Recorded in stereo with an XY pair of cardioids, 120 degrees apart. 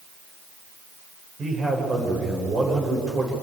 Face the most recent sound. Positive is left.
turn(degrees=-30)